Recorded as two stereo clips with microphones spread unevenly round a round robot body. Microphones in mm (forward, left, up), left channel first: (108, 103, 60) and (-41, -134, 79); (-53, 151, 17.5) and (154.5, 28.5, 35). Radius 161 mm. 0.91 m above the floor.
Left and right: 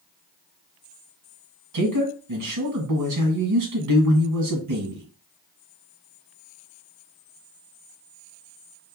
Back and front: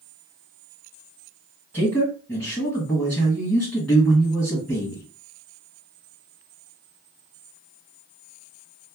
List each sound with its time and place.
1.7 s a man speaking: 130° right, 1.4 m